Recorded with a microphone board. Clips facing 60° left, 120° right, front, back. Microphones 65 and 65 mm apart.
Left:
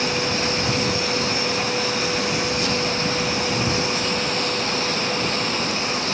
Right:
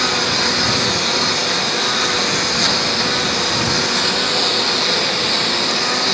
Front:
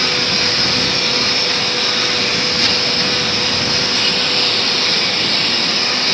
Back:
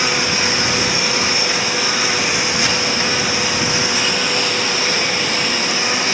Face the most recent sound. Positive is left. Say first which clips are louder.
# right 4 dB, back 1 dB
turn(degrees=-100)